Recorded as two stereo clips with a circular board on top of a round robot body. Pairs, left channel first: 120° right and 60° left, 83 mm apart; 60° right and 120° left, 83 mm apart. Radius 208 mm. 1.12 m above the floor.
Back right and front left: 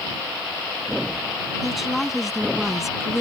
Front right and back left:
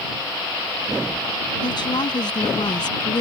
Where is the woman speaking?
25° right.